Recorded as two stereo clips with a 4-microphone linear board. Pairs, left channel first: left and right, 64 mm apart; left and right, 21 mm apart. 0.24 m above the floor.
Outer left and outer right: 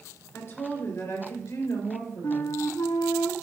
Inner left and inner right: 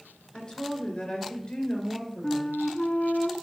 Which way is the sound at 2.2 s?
75° left (ahead or behind).